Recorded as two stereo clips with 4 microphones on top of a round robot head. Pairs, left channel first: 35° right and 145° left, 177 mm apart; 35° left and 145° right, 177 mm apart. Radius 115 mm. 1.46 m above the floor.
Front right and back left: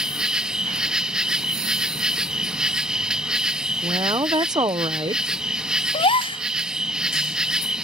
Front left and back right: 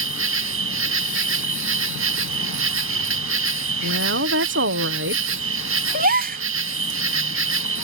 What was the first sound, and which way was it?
An insect, 130° right.